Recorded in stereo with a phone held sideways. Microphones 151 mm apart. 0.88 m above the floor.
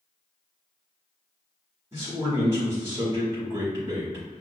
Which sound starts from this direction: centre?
A man speaking, at 1.9 s.